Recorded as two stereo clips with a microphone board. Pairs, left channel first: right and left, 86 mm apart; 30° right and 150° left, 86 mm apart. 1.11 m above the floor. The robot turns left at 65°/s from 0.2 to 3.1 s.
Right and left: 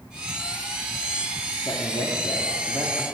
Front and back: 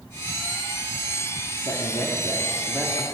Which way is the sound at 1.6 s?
50° right.